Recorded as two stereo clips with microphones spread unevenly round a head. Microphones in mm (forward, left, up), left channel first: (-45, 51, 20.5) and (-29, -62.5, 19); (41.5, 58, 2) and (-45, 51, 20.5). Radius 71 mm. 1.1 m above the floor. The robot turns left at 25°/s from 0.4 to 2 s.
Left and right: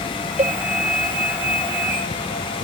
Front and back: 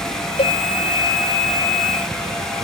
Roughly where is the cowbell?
Ahead right.